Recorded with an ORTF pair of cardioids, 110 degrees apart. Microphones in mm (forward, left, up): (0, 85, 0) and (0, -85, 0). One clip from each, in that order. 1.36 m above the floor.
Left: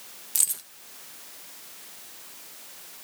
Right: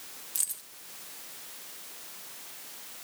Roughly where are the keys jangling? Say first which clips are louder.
Left 7 dB; ahead left.